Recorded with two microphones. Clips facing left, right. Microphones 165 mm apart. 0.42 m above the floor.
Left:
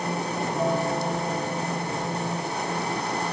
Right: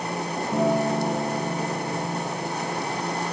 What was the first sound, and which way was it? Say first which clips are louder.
A guitar: right 4 dB; 75° right (ahead or behind).